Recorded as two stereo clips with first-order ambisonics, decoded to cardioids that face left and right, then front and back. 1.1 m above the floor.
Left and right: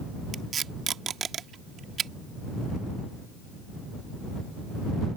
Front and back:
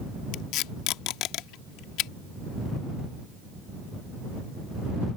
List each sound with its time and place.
0.3 s tape being pulled: 30° right